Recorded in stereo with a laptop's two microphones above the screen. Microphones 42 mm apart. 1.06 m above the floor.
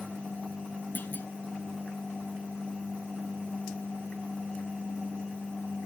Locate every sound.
0.9 s a clunk: 40° left (ahead or behind)